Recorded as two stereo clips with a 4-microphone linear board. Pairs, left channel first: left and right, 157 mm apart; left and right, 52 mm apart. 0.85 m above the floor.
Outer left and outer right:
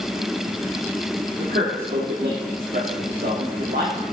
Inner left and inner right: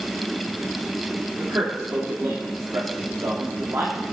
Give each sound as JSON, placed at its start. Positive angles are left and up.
{"t": 1.4, "sound": "a man speaking", "side_deg": -65, "distance_m": 2.5}